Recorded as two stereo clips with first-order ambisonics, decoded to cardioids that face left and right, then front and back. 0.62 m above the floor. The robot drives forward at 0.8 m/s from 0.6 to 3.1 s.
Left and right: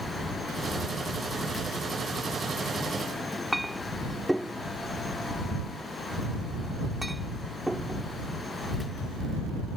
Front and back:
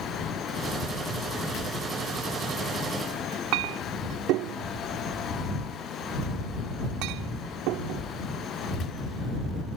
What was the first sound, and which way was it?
A clink, straight behind.